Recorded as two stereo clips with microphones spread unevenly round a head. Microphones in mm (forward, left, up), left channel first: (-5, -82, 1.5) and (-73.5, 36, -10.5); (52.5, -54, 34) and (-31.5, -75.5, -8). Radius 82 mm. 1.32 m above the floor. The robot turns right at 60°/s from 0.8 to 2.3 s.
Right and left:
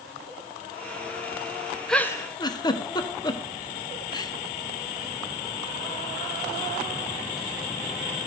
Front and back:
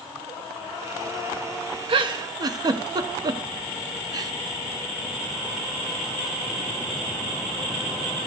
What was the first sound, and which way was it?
A giggle, 145° right.